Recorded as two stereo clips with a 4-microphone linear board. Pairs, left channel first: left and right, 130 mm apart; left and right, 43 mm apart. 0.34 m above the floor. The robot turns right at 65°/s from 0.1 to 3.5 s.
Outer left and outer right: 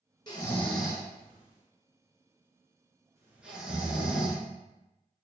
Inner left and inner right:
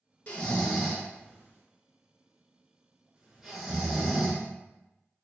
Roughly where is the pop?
I don't hear a pop.